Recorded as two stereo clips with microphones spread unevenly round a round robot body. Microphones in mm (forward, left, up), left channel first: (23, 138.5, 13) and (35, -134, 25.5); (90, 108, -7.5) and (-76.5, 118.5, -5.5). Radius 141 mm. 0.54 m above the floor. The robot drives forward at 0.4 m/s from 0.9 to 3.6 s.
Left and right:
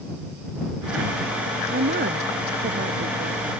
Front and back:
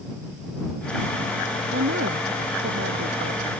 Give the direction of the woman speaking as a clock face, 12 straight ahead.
5 o'clock.